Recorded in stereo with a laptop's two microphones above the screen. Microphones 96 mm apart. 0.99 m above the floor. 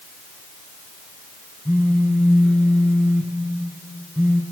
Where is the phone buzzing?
10° left (ahead or behind), 4.5 m.